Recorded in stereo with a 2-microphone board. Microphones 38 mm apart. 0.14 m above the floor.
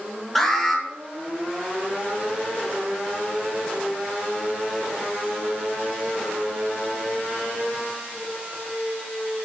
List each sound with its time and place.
0.3 s an alarm: 5° left (ahead or behind), 4.5 m